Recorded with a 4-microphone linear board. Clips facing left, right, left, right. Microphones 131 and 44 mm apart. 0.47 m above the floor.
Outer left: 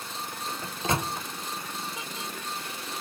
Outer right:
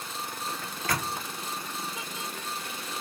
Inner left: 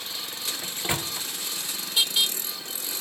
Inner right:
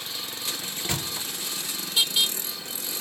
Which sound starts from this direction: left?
A microwave, at 0.6 s.